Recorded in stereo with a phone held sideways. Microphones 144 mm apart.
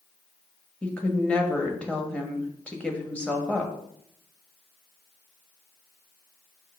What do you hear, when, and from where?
0.8 s a woman speaking: 10° left (ahead or behind), 1.4 m